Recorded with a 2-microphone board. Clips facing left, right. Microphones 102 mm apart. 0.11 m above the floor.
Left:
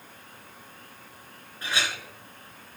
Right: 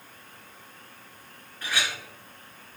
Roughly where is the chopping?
No chopping in this recording.